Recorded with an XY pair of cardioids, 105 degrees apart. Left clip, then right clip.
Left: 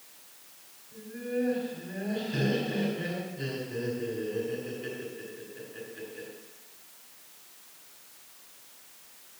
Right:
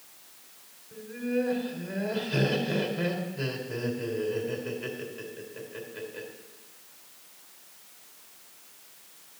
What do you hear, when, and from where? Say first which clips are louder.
0.9 s laughter: right 3 dB; 70° right, 3.5 m